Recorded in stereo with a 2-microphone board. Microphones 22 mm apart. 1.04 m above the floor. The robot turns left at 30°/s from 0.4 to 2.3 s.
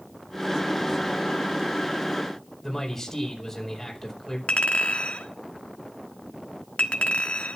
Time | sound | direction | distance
2.6 | a man speaking | 10° left (ahead or behind) | 4.5 m
4.5 | a clink | 85° left | 1.4 m